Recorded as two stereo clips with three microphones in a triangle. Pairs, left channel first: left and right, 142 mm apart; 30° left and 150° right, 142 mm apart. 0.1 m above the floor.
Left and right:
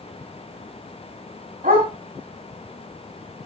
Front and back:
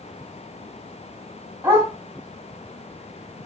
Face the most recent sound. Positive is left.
turn(degrees=-75)